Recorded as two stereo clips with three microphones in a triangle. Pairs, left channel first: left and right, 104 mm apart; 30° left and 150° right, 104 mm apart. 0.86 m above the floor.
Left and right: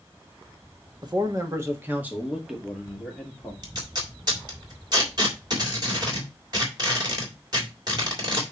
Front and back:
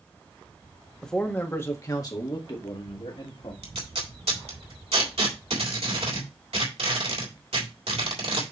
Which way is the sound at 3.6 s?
140° right.